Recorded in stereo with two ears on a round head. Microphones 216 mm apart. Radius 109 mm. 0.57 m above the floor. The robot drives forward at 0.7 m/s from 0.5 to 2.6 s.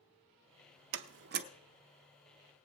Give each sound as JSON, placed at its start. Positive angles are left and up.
{"t": 0.9, "sound": "a door slam", "side_deg": -50, "distance_m": 0.6}